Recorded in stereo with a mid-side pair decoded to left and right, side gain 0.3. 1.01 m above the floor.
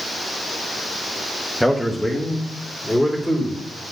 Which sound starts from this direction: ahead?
A man speaking, at 1.6 s.